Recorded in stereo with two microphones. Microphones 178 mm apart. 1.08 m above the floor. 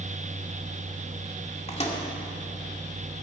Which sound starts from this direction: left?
A microwave, at 1.7 s.